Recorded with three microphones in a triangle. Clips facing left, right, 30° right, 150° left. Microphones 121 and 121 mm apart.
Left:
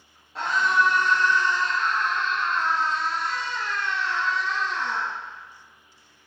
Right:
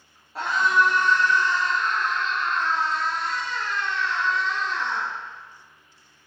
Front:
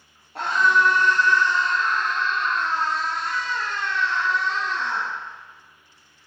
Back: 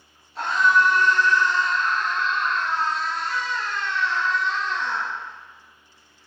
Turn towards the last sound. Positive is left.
turn(degrees=25)